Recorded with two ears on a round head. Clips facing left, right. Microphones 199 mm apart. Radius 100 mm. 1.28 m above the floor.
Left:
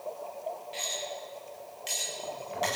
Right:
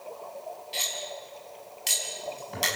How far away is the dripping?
No dripping in this recording.